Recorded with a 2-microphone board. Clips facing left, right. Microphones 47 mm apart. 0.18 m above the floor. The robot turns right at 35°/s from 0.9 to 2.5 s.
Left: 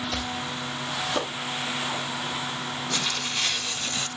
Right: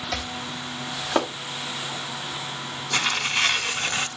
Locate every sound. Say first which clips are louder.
0.1 s chopping: even; 65° right (ahead or behind), 3 m; by 1.3 s 55° right (ahead or behind), 3 m
2.9 s tearing paper: right 8 dB; 45° right (ahead or behind), 0.7 m